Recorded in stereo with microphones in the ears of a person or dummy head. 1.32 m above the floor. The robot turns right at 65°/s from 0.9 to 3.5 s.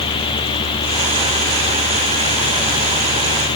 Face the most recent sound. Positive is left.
No sound to turn to.